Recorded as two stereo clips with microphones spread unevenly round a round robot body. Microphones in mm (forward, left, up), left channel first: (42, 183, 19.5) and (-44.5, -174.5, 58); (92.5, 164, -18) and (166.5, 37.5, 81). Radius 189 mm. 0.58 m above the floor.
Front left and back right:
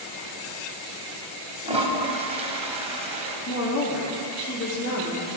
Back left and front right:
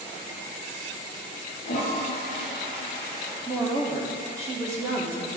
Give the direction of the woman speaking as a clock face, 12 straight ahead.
10 o'clock.